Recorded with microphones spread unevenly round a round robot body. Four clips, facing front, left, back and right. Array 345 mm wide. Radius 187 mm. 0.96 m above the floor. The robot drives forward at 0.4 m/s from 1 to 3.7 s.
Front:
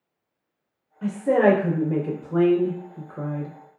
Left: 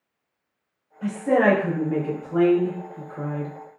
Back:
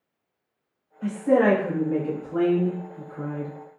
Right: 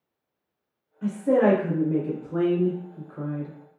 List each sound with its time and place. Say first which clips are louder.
1.0 s a woman speaking: left 1 dB, front 1 dB; 10° left, 1.5 m; by 3.5 s 35° left, 0.7 m